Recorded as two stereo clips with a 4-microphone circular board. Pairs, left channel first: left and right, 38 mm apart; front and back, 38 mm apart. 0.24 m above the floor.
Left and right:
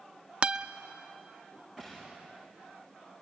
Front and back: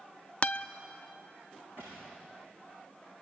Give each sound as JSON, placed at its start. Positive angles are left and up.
{"t": 0.4, "sound": "a guitar", "azimuth_deg": -50, "distance_m": 0.5}
{"t": 1.8, "sound": "a gunshot", "azimuth_deg": -155, "distance_m": 7.0}